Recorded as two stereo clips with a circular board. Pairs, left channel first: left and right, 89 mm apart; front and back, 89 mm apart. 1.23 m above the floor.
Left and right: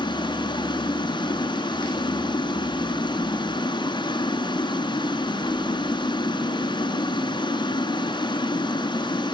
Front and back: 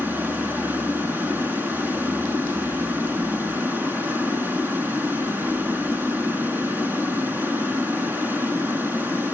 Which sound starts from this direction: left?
Running water, at 0.0 s.